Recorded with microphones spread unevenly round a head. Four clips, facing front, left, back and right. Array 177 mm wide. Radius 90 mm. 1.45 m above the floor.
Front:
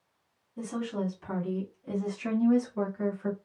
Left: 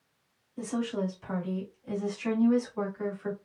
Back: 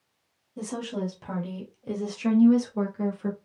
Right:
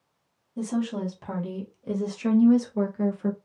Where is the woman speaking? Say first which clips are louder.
Right 3 dB, back 1 dB; 125° right, 3 m; by 3.4 s 115° right, 1.3 m.